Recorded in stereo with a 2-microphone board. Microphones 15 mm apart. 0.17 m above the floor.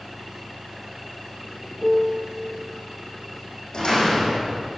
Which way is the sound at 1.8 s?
25° right (ahead or behind).